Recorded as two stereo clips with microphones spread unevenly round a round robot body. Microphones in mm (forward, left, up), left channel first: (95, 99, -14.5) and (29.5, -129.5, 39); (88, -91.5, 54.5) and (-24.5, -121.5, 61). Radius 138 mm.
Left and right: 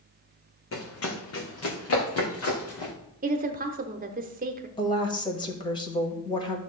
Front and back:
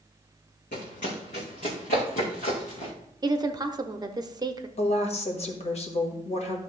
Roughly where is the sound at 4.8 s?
Ahead.